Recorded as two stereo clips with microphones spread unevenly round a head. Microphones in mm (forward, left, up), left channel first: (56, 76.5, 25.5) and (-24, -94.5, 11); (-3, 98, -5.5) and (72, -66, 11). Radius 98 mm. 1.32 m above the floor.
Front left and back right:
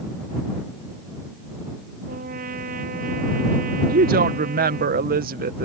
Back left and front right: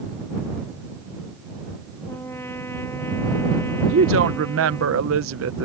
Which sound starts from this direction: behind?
A trumpet, at 2.1 s.